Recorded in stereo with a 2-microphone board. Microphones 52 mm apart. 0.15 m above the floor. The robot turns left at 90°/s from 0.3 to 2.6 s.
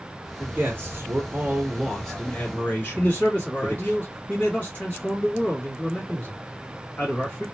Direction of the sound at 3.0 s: 25° left (ahead or behind).